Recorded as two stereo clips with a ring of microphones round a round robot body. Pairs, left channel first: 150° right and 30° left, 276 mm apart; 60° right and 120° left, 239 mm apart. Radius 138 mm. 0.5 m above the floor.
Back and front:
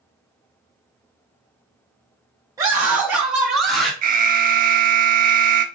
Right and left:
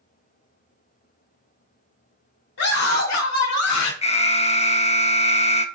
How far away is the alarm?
About 1.0 m.